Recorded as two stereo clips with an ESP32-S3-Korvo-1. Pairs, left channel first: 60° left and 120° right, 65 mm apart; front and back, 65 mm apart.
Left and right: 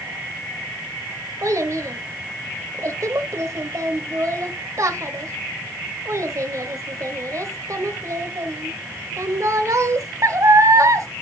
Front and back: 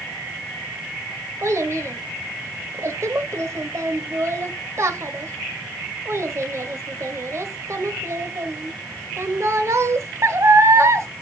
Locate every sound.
1.4 s a child speaking: 145° right, 1.1 m